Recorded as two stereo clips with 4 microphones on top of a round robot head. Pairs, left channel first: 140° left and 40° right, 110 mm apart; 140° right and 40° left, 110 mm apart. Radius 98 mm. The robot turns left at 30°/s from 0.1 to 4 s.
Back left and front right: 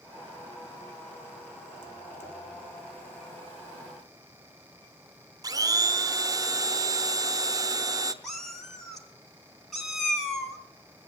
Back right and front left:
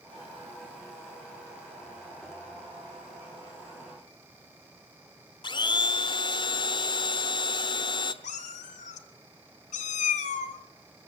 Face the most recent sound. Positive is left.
turn(degrees=-130)